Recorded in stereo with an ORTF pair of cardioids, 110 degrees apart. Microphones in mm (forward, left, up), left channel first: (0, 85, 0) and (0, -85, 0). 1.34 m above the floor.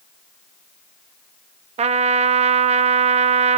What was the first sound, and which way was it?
A trumpet, 40° right.